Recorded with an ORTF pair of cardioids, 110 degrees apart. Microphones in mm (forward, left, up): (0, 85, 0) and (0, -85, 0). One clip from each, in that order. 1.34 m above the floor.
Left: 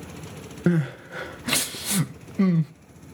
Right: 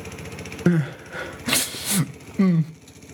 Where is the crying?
15° right, 0.6 m.